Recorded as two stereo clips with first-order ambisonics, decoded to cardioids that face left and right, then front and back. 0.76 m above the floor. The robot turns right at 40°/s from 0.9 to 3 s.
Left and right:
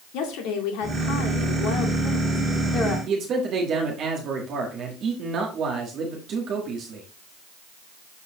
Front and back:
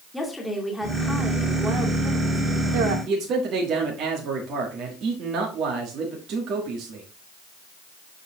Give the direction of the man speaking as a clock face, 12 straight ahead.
5 o'clock.